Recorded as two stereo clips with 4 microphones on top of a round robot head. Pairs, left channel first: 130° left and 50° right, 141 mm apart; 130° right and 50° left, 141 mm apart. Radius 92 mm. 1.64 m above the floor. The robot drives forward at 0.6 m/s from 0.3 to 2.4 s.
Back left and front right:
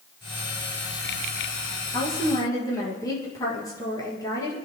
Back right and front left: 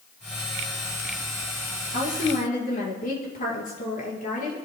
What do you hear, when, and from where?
1.9 s a woman speaking: 160° right, 5 m; by 4.5 s 165° right, 5.5 m